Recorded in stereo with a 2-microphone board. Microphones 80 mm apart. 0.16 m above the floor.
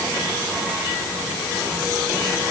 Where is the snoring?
I don't hear snoring.